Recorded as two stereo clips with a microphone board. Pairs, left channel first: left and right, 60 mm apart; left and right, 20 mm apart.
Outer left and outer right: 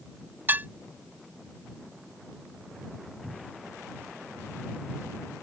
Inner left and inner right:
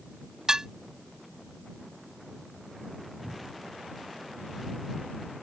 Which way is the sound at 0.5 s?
35° right (ahead or behind).